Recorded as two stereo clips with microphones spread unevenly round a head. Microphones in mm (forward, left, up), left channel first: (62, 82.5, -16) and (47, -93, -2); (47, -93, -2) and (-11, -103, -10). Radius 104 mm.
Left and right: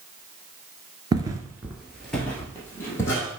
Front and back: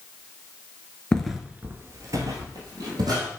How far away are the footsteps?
About 1.1 m.